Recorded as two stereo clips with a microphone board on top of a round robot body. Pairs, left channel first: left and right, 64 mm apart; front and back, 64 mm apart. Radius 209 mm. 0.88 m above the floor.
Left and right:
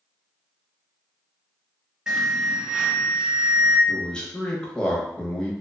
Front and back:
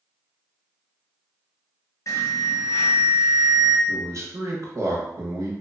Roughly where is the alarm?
Ahead.